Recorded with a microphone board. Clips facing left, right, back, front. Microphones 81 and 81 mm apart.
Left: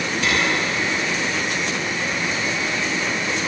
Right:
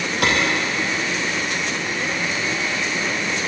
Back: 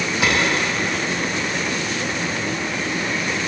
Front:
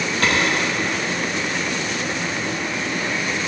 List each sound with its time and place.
0.2 s a clap: 100° right, 6.5 m